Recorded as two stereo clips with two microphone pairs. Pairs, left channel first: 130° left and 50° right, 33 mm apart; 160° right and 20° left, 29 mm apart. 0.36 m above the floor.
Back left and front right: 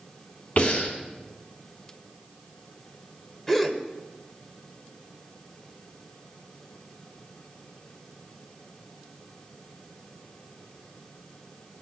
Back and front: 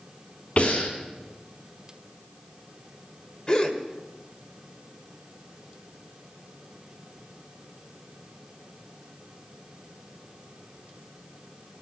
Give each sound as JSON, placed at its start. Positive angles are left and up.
{"t": 0.6, "sound": "breathing", "azimuth_deg": 160, "distance_m": 3.5}
{"t": 3.5, "sound": "a gasp", "azimuth_deg": -160, "distance_m": 1.4}